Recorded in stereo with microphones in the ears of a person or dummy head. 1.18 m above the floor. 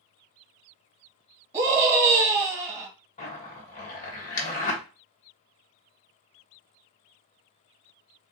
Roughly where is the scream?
Centre.